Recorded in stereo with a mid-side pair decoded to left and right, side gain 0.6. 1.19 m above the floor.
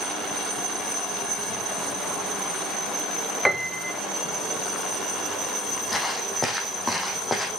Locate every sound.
3.5 s a piano: straight ahead, 1.5 m
5.9 s footsteps: 20° left, 3.5 m